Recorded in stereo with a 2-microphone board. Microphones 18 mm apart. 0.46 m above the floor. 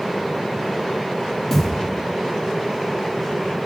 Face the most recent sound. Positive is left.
turn(degrees=10)  # may be behind; listen again after turning